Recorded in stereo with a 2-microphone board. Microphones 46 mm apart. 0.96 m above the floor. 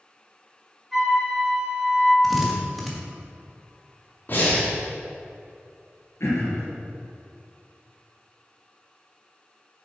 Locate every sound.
0.9 s a flute: 5° right (ahead or behind), 3 m
2.2 s a drill: centre (ahead or behind), 1.5 m
4.3 s breathing: 45° left (ahead or behind), 2.5 m
6.2 s throat clearing: 70° left (ahead or behind), 2.5 m